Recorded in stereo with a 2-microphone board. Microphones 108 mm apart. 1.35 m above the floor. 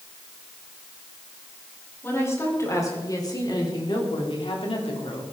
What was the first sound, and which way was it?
A woman speaking, 25° left (ahead or behind).